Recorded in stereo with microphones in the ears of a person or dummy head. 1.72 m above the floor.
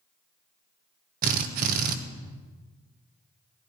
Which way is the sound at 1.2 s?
50° right (ahead or behind).